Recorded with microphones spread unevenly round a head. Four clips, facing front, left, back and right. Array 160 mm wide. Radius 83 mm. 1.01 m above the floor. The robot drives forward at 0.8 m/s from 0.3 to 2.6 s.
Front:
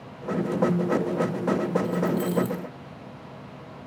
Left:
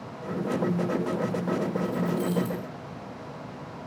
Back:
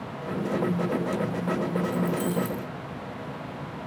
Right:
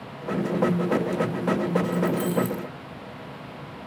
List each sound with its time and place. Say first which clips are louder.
1.8 s keys jangling: right 3 dB, front 1 dB; 75° right, 2.5 m; by 2.7 s 90° right, 2.5 m